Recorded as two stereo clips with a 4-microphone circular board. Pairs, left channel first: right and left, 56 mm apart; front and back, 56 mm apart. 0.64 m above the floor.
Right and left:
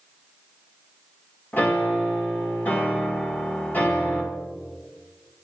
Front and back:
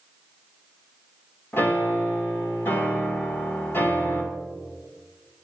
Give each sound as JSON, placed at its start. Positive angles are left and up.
{"t": 1.5, "sound": "a piano", "azimuth_deg": -40, "distance_m": 2.5}